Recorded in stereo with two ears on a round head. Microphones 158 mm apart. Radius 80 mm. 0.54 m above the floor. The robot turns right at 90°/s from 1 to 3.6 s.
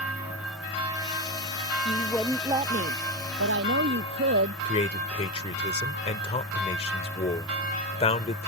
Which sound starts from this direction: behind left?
A woman speaking, at 1.9 s.